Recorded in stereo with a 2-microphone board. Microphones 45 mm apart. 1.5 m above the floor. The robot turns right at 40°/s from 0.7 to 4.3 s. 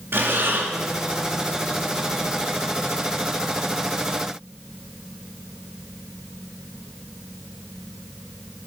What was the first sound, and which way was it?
Breathing, 55° right (ahead or behind).